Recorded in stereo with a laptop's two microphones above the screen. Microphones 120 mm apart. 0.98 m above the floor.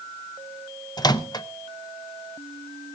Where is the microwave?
35° left (ahead or behind), 0.6 m.